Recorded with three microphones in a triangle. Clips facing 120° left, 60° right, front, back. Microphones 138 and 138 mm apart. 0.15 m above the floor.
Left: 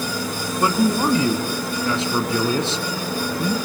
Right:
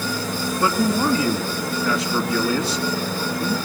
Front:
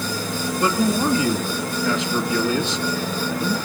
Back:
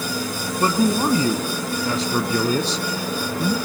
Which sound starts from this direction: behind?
A man speaking, at 0.6 s.